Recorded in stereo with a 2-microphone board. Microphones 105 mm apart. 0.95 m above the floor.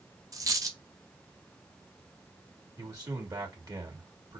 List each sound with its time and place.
0.3 s a dropped coin: 35° right (ahead or behind), 0.9 m
2.8 s a man speaking: 40° right (ahead or behind), 2.0 m